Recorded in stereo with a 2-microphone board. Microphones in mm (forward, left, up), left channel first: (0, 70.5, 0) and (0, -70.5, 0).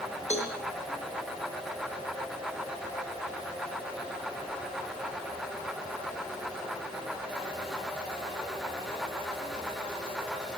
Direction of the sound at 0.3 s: 50° left (ahead or behind).